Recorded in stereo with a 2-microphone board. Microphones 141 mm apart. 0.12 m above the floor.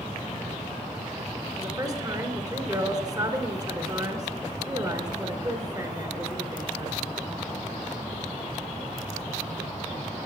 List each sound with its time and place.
1.6 s a woman speaking: 30° right (ahead or behind), 1.4 m